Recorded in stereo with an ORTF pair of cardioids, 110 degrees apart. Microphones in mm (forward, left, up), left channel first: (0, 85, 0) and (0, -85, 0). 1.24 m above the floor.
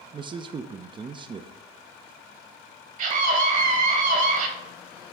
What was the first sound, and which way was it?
A man speaking, 30° right.